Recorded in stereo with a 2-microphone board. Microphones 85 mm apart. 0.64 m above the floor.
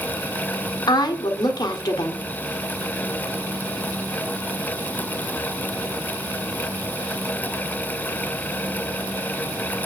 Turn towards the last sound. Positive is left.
turn(degrees=55)  # may be behind; listen again after turning